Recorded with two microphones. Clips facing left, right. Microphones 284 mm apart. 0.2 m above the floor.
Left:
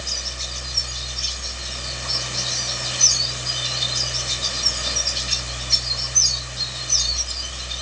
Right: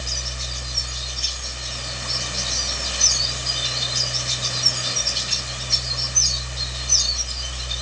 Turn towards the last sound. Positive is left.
No sound to turn to.